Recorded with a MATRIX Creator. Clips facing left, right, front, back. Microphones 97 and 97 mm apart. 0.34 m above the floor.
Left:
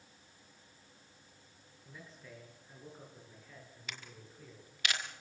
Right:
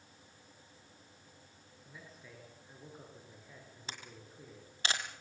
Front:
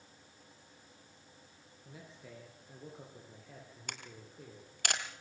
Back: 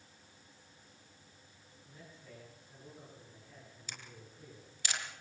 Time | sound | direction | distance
1.9 | a man speaking | straight ahead | 6 m
3.9 | a camera shutter | 30° right | 2.5 m